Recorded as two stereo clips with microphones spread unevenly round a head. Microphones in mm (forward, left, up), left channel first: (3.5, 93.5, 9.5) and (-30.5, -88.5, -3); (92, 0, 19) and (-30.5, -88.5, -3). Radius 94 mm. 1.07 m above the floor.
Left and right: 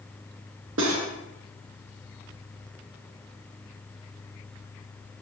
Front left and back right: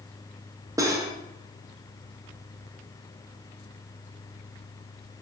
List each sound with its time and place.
0.8 s cutlery clinking: 75° right, 0.8 m